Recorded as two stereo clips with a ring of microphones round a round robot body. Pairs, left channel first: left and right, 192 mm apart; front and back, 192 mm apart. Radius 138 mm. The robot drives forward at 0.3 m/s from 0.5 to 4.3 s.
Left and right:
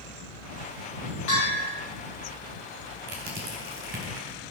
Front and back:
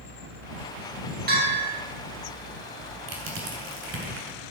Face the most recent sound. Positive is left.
turn(degrees=-150)